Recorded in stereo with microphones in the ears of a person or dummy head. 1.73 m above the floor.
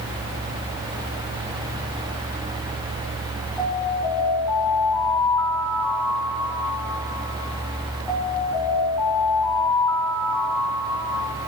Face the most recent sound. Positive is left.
turn(degrees=0)  # may be behind; listen again after turning